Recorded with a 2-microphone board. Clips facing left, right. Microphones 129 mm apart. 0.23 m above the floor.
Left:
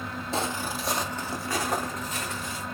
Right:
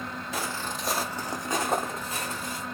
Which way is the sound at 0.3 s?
25° left (ahead or behind).